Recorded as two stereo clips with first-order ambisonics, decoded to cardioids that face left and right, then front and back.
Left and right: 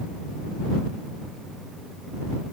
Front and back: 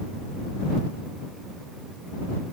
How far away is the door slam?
I don't hear a door slam.